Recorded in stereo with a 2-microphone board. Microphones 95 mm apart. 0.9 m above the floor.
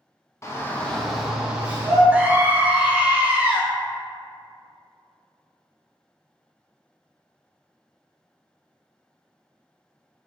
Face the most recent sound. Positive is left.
turn(degrees=-15)  # may be behind; listen again after turning